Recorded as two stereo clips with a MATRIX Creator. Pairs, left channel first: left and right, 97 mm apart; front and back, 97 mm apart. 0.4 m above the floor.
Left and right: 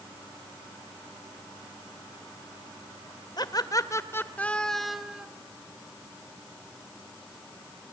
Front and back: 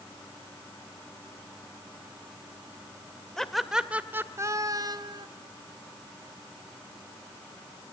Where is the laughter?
85° left, 1.9 m; by 5.3 s 170° right, 2 m.